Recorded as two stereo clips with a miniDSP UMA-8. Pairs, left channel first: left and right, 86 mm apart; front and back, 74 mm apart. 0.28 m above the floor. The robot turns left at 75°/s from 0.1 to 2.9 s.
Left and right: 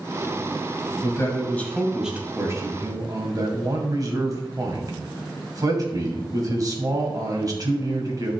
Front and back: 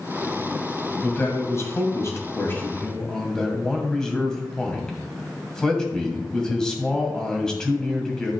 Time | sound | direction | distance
1.0 | a man speaking | 65° left | 2 m